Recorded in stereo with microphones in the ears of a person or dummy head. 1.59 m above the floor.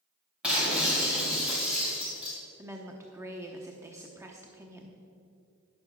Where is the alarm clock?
I don't hear an alarm clock.